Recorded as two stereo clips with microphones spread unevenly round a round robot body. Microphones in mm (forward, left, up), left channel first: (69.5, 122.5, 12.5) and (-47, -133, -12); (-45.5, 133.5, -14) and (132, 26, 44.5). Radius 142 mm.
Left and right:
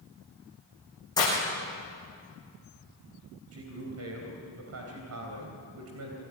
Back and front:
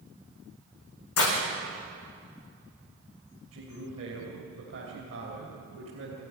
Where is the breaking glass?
140° left, 7.5 m.